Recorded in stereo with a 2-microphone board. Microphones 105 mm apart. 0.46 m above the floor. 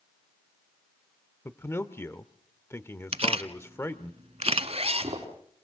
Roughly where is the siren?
No siren in this recording.